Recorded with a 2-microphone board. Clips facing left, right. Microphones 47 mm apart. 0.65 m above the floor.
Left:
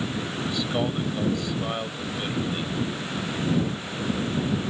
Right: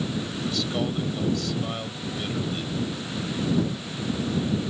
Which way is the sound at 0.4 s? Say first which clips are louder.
Left 1 dB; 20° left (ahead or behind).